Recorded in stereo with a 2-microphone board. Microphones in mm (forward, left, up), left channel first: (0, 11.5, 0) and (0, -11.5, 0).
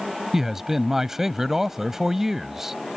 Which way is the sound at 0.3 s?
20° right (ahead or behind).